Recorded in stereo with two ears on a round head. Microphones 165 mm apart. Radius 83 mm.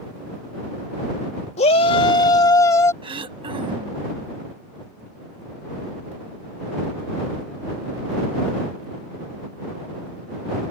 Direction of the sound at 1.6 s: 35° left (ahead or behind).